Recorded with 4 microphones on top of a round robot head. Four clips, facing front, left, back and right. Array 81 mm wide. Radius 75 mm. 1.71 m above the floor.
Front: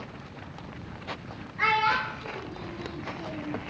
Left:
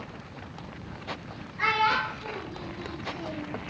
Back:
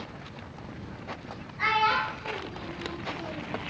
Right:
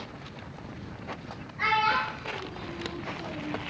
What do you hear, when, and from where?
1.6 s a child speaking: 5° left, 0.7 m; by 3.5 s 105° left, 1.3 m